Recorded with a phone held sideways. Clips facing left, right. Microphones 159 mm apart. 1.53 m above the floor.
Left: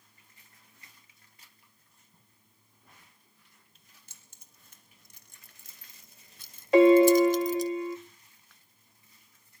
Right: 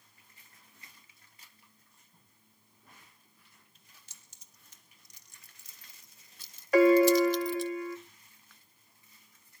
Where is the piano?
25° left (ahead or behind), 0.6 m.